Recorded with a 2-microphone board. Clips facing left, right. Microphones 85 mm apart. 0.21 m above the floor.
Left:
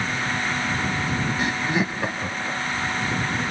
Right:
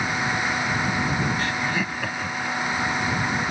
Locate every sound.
1.4 s laughter: 20° left (ahead or behind)